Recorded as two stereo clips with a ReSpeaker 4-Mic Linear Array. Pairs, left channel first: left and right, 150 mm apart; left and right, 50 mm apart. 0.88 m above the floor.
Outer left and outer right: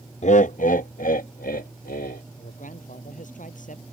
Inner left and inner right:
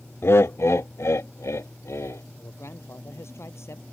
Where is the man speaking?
60° left (ahead or behind).